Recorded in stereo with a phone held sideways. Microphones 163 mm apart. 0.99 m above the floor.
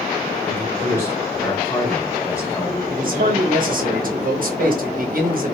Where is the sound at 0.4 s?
15° left (ahead or behind), 1.9 m.